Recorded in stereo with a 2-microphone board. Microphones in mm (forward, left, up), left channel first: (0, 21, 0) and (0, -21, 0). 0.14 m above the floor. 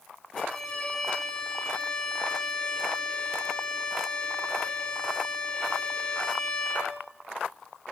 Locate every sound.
0.4 s a violin: 20° left (ahead or behind), 2 m